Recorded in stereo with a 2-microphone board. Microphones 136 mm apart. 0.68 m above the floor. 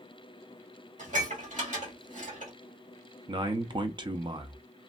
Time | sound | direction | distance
1.0 | dishes clattering | 65° right (ahead or behind) | 1.7 m
3.3 | a man speaking | 35° right (ahead or behind) | 0.6 m